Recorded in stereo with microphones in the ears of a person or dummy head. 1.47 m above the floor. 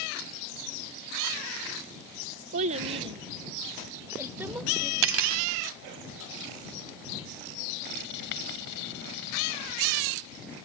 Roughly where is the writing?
Left.